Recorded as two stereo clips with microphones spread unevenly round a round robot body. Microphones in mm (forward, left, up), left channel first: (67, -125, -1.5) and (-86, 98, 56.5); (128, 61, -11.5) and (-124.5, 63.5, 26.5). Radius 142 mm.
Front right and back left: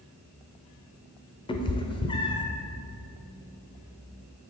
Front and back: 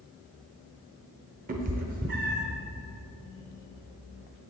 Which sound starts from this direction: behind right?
A cat meowing, at 1.5 s.